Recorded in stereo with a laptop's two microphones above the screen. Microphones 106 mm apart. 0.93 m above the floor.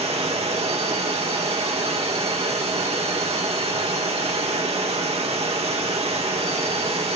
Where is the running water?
70° right (ahead or behind), 1.9 m.